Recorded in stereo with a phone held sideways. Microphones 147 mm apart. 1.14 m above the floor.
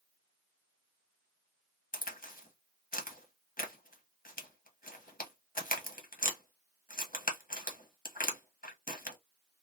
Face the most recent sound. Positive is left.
turn(degrees=75)  # may be behind; listen again after turning